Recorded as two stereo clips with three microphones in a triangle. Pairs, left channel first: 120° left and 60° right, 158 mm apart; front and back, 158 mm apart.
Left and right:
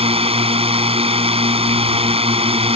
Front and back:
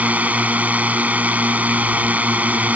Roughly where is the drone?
Right.